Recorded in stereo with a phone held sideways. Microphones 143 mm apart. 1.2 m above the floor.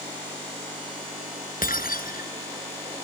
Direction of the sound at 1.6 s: 85° left.